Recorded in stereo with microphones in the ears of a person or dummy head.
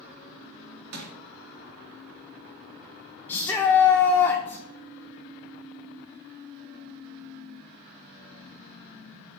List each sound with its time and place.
0.9 s crushing: 50° right (ahead or behind), 2 m
3.3 s a shout: 25° left (ahead or behind), 0.6 m